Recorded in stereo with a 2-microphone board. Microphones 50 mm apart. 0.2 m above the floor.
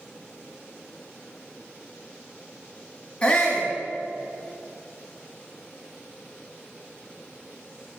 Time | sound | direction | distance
3.2 | a shout | 25° left (ahead or behind) | 1.5 m